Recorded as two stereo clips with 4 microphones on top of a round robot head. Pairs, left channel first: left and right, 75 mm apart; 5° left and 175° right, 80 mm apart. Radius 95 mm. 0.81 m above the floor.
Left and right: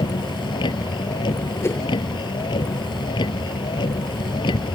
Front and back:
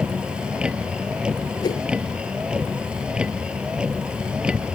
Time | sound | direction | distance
0.0 | a vehicle | 105° left | ?
1.6 | a whoosh | 35° left | ?